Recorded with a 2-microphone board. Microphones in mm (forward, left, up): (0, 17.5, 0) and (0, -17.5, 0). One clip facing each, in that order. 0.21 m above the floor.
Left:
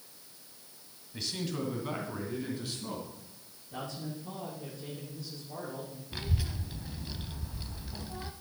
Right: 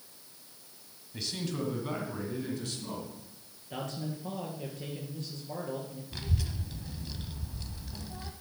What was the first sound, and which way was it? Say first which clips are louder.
A man speaking: even; centre (ahead or behind).